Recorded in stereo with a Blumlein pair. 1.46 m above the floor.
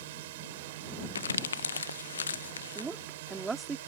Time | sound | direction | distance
0.0 | a drone | 55° right | ?
1.1 | crumpling | 70° left | ?
2.8 | a woman speaking | 10° right | ?